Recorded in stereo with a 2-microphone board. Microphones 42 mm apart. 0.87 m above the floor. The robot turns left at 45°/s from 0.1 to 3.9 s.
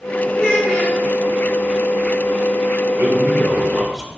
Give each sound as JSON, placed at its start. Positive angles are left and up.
{"t": 0.3, "sound": "a child speaking", "side_deg": 35, "distance_m": 6.5}
{"t": 3.0, "sound": "a man speaking", "azimuth_deg": -120, "distance_m": 4.0}